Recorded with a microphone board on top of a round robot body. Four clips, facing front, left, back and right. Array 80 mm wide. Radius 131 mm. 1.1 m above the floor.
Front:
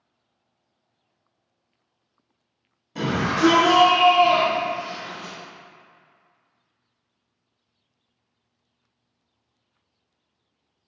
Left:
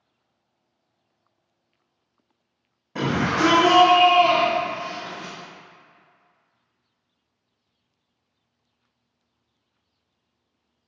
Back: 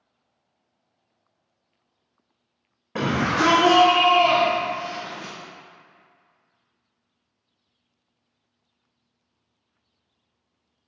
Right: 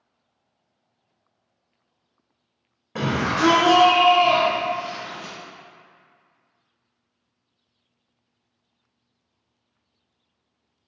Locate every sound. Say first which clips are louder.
3.0 s a shout: even, back 1 dB; 165° right, 2 m; by 5.3 s 155° left, 5 m